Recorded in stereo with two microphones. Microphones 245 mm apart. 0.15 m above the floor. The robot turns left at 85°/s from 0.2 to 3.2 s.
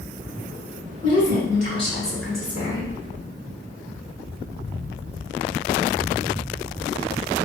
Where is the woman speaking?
115° left, 1.1 m; by 2.9 s 45° right, 1.1 m.